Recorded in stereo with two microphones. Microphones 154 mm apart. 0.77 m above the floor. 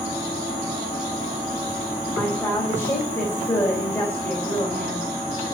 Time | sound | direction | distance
2.2 | a woman speaking | 15° left (ahead or behind) | 4 m